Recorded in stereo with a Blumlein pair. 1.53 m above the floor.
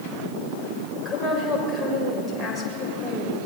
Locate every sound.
0.9 s a woman speaking: 5° left, 7 m